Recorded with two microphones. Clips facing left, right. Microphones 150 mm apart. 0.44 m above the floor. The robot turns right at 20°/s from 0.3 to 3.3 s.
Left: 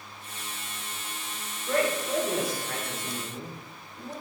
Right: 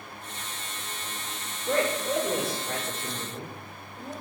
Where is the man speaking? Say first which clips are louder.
Even; 30° right (ahead or behind), 0.8 m; by 4.1 s 20° right (ahead or behind), 0.8 m.